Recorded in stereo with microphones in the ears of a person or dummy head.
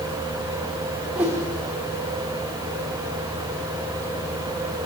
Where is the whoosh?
5° right (ahead or behind), 2 m.